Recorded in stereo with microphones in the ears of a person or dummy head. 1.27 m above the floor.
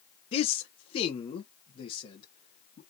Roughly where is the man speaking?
Left.